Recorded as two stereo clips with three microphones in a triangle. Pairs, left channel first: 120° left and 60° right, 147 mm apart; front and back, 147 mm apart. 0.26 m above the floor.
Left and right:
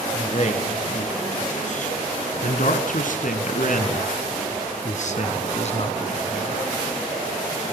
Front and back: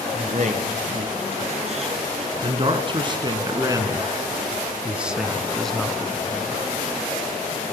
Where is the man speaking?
155° left, 3.5 m; by 6.6 s 75° left, 2.5 m.